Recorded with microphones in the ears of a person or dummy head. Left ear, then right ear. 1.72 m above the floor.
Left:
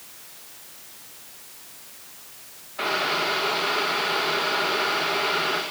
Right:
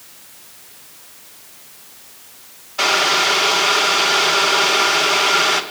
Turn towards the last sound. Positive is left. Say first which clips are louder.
# right 9 dB
turn(degrees=-85)